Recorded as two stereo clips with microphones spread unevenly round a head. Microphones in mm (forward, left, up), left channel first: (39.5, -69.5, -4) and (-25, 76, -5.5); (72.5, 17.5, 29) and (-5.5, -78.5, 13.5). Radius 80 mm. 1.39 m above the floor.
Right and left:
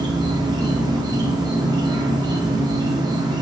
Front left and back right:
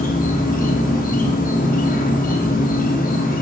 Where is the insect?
45° left, 1.1 m.